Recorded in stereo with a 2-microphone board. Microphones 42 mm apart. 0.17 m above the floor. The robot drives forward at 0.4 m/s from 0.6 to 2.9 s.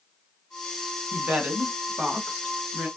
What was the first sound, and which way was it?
A woman speaking, 35° right (ahead or behind).